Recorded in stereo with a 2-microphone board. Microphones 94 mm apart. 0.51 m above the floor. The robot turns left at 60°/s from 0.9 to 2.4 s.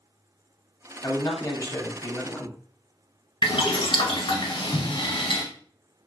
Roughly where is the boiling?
Left.